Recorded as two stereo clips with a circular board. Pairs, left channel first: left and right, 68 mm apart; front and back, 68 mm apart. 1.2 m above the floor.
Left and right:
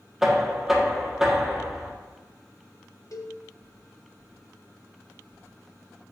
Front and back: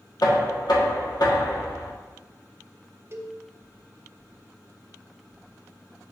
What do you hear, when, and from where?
0.2 s knocking: 10° right, 1.3 m
3.1 s a cowbell: 125° left, 0.5 m